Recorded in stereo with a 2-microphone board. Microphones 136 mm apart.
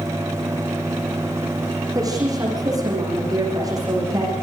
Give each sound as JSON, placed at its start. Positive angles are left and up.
{"t": 1.9, "sound": "a woman speaking", "side_deg": -25, "distance_m": 9.0}